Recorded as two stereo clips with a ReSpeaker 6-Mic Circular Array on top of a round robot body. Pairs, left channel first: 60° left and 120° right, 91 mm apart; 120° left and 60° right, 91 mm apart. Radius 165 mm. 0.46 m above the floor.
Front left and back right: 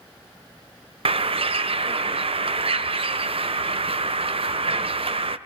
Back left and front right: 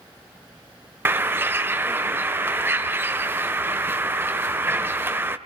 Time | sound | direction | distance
1.1 | a bird | 125° right | 1.6 m